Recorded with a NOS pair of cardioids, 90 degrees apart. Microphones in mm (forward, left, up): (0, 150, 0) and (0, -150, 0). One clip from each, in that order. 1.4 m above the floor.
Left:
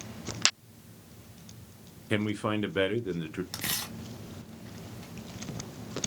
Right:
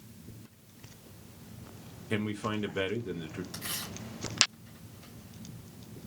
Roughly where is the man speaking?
Ahead.